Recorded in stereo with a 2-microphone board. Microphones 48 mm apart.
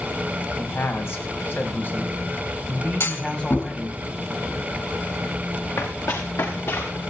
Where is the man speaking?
60° left (ahead or behind), 5.5 m; by 4.0 s 15° left (ahead or behind), 5.5 m.